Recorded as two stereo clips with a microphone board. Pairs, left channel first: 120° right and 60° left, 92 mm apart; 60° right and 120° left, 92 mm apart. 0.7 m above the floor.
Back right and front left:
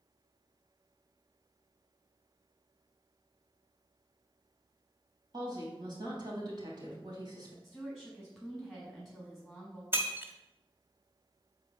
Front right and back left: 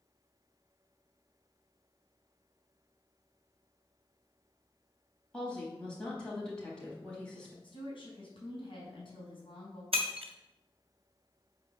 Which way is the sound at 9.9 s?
125° left.